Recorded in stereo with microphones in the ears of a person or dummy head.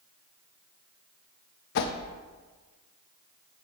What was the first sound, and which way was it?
A whoosh, 55° left (ahead or behind).